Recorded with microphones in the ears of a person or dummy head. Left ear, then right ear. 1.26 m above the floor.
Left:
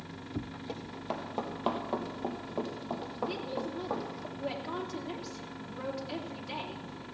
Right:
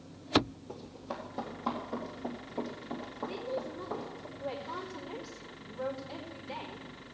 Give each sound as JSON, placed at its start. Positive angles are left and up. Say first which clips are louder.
{"t": 0.7, "sound": "running footsteps", "louder": "left 6 dB", "side_deg": 45, "distance_m": 2.5}
{"t": 3.3, "sound": "a woman speaking", "louder": "left 1 dB", "side_deg": 75, "distance_m": 3.0}